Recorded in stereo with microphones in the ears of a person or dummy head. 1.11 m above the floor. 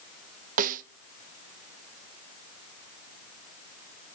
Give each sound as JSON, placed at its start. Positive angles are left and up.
{"t": 0.6, "sound": "a snare drum", "side_deg": -45, "distance_m": 0.8}